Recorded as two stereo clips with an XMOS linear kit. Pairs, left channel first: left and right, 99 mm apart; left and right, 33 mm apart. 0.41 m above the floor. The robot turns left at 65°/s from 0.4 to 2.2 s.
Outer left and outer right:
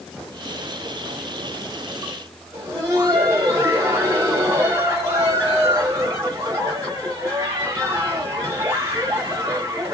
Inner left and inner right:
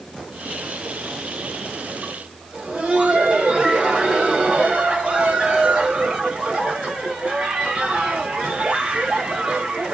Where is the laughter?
30° right (ahead or behind), 1.9 m.